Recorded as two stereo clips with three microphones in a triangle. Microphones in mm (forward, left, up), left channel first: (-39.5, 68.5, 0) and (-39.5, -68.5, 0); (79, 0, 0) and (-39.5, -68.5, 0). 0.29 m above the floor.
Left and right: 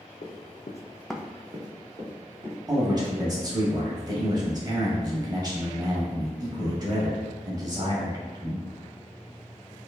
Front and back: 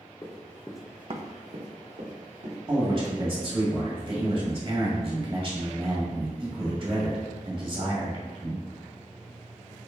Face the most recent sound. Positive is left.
turn(degrees=-135)